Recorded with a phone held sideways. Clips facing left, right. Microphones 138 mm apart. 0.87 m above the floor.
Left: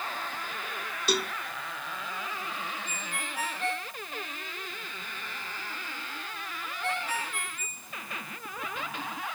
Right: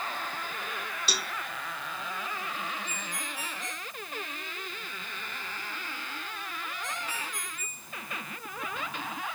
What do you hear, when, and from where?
1.1 s a cowbell: 55° left (ahead or behind)
2.9 s a ringtone: 60° left (ahead or behind)